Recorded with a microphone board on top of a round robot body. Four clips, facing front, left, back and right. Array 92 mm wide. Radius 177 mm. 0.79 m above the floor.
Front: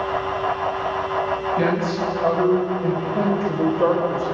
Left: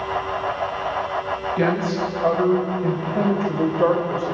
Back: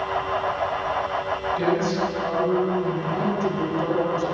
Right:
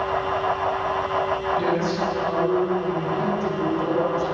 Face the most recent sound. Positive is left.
turn(degrees=50)